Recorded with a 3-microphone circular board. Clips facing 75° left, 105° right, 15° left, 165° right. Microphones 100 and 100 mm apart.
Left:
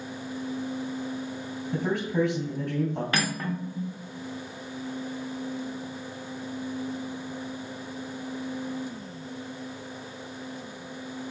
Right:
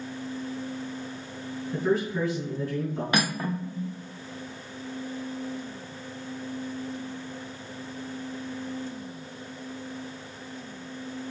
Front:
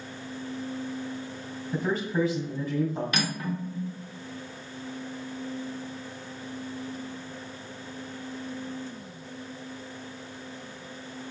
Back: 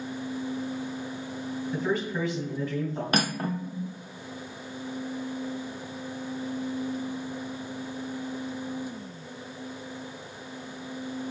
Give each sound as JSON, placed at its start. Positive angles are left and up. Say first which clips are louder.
{"t": 1.7, "sound": "a man speaking", "louder": "right 1 dB, front 2 dB", "azimuth_deg": 95, "distance_m": 2.5}
{"t": 3.1, "sound": "cutlery clinking", "louder": "right 2 dB, back 3 dB", "azimuth_deg": -170, "distance_m": 0.7}